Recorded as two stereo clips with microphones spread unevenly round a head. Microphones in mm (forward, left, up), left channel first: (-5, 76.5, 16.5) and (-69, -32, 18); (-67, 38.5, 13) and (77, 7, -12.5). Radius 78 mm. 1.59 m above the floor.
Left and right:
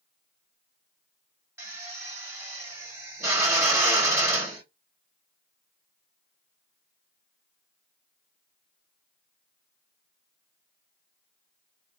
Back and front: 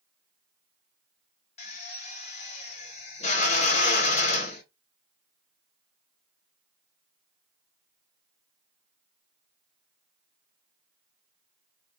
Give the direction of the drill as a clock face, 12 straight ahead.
6 o'clock.